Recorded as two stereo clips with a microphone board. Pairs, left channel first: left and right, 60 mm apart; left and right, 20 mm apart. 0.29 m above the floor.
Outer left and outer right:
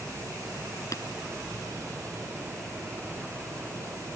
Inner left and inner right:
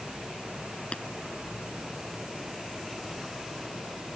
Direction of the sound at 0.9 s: 60° left (ahead or behind).